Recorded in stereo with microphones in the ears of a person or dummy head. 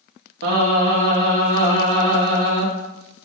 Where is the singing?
65° right (ahead or behind), 1.6 m.